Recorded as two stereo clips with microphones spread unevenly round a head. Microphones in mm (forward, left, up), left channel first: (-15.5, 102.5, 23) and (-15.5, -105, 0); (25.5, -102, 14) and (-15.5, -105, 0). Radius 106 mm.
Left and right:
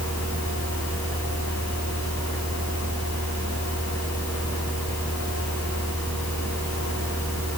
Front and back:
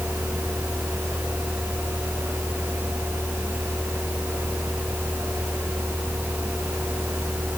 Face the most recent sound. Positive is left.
turn(degrees=110)